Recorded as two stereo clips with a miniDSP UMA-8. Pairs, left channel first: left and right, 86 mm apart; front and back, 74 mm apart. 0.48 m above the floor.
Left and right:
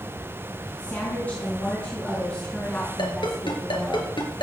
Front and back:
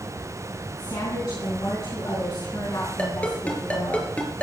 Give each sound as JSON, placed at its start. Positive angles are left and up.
{"t": 0.8, "sound": "a woman speaking", "azimuth_deg": 20, "distance_m": 3.5}
{"t": 3.0, "sound": "a ringtone", "azimuth_deg": 70, "distance_m": 3.0}